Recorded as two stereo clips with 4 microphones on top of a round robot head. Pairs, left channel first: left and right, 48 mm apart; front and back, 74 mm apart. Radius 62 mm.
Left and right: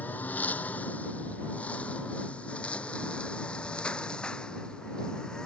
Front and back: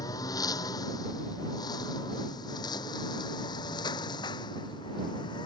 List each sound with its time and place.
0.0 s a lawn mower: 35° left; by 5.5 s 15° left